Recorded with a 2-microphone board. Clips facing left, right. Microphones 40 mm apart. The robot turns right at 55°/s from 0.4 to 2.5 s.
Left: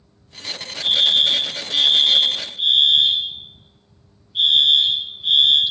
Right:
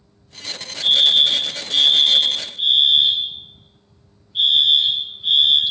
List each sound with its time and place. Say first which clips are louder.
0.8 s a fire alarm: right 2 dB; 25° right (ahead or behind), 1.5 m; by 5.6 s 5° right (ahead or behind), 1.5 m